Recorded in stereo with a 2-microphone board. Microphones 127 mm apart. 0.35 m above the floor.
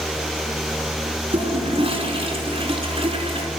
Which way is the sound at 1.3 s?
50° right (ahead or behind).